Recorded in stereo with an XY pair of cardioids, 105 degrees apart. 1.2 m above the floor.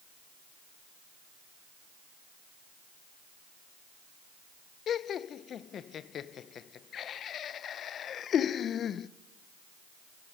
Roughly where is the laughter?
Ahead left.